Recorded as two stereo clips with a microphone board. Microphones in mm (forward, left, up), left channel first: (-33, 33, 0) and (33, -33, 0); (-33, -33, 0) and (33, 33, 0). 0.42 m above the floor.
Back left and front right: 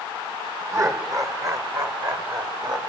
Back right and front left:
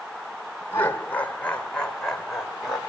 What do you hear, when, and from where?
0.7 s laughter: 85° right, 1.6 m; by 2.8 s 40° right, 2.0 m